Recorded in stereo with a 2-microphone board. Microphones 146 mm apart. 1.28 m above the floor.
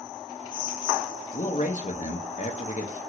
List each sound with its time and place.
1.3 s a man speaking: 55° left (ahead or behind), 0.6 m